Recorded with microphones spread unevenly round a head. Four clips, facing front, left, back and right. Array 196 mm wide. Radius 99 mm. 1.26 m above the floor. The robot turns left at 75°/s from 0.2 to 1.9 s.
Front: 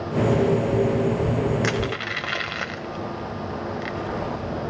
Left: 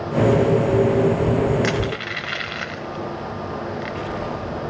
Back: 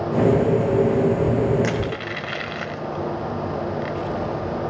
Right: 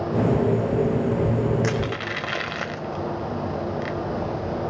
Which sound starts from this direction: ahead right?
Crushing, at 1.6 s.